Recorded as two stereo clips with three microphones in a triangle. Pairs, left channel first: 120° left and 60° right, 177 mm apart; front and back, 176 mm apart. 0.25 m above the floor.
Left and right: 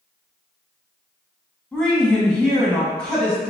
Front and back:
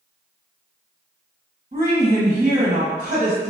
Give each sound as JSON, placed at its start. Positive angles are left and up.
{"t": 1.7, "sound": "a woman speaking", "azimuth_deg": -155, "distance_m": 1.6}